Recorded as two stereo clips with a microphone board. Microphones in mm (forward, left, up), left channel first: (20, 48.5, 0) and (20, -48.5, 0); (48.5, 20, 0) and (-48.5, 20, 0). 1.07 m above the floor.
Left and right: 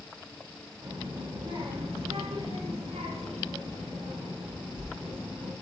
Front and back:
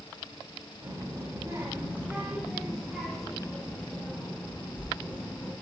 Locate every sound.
0.8 s a child speaking: 135° right, 1.3 m; by 5.5 s 70° right, 3 m